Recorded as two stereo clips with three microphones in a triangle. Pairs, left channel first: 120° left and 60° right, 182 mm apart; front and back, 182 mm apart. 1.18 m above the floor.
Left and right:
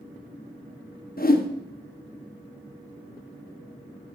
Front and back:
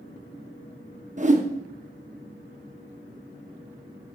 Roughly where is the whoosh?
Behind left.